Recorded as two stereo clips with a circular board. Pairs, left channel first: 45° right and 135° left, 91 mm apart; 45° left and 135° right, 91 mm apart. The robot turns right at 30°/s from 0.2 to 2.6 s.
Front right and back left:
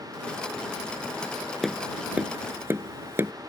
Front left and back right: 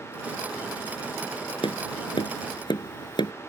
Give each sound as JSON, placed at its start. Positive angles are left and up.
{"t": 1.6, "sound": "tapping", "azimuth_deg": 45}